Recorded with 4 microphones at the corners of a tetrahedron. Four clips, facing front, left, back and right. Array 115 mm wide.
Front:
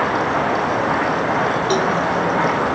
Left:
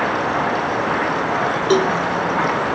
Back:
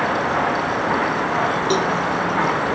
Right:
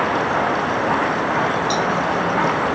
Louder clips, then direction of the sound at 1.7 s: Left 4 dB, front 2 dB; 90° left.